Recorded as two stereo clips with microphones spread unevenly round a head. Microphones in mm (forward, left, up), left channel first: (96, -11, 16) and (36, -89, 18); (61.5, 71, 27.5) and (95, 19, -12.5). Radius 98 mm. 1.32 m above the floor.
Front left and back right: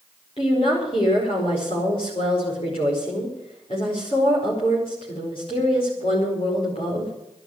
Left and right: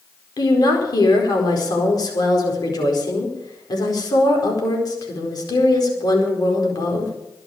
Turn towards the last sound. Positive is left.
turn(degrees=110)